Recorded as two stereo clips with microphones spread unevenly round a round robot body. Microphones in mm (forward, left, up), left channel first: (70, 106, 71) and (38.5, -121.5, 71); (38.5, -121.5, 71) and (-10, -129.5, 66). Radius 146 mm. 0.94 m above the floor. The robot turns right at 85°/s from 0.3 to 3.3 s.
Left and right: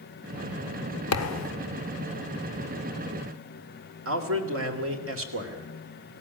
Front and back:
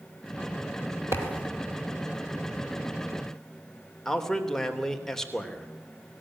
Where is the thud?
60° left, 2 m; by 1.5 s 95° left, 2 m.